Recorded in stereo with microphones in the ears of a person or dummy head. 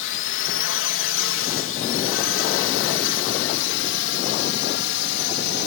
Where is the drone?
60° left (ahead or behind).